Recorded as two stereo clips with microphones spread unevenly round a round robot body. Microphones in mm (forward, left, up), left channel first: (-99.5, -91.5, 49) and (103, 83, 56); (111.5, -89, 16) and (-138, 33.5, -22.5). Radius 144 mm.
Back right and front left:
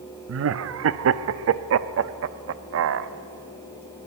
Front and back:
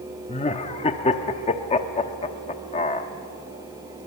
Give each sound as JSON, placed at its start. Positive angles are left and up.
{"t": 0.3, "sound": "laughter", "azimuth_deg": 45, "distance_m": 0.7}